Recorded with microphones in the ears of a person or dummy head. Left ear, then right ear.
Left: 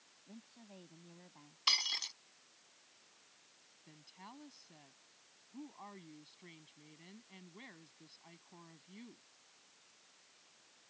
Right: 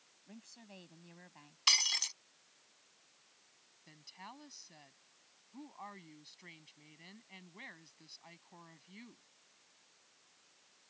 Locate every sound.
0.3 s a woman speaking: 70° right (ahead or behind)
1.7 s breaking glass: 15° right (ahead or behind)
3.9 s a woman speaking: 25° right (ahead or behind)